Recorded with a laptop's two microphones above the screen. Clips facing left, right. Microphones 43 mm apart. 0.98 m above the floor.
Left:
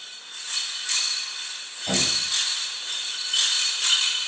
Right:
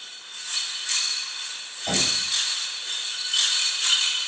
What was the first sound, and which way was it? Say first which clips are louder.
Knocking: even; 30° right (ahead or behind).